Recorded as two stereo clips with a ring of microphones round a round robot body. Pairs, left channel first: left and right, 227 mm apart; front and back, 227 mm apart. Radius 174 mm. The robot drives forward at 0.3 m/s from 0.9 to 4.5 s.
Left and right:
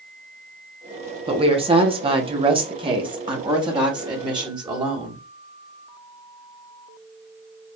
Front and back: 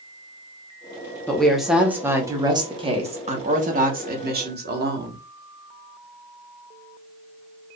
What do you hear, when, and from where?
1.3 s a woman speaking: 80° right, 1.0 m; by 5.2 s 155° right, 1.3 m